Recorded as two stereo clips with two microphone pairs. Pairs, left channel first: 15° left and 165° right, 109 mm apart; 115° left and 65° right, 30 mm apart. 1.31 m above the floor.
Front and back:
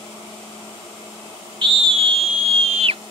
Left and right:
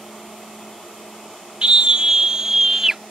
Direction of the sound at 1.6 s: 125° right.